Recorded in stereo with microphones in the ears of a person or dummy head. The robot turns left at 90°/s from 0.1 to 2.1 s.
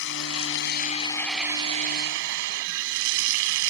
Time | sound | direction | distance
0.0 | running water | 110° left | ?